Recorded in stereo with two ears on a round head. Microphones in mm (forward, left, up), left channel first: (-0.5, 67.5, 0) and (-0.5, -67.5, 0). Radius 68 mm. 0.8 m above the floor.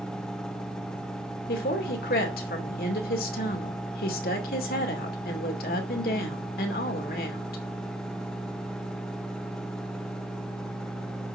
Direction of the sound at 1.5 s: 65° left (ahead or behind).